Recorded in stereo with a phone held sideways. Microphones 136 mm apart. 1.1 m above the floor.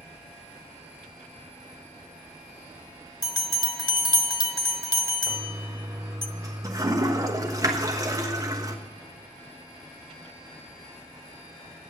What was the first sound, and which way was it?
A bell, 30° left (ahead or behind).